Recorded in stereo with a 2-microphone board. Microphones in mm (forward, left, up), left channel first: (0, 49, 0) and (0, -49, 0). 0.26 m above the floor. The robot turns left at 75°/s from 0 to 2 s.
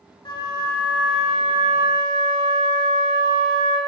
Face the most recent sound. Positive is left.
turn(degrees=-60)